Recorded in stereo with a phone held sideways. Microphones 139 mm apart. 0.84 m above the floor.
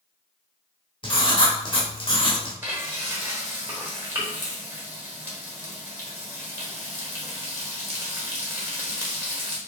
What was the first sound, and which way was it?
Writing, 40° left (ahead or behind).